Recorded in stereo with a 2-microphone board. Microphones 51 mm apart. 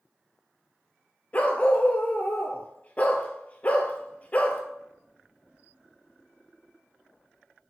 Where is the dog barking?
30° left (ahead or behind), 0.7 m.